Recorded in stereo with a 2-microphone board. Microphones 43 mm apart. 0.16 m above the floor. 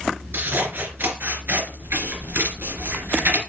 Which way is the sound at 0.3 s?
60° right (ahead or behind).